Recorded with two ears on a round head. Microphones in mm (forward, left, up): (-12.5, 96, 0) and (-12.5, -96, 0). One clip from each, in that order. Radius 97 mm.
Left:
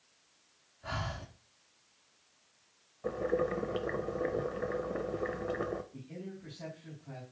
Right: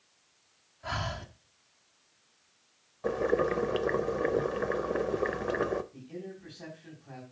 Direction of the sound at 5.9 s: 5° right (ahead or behind).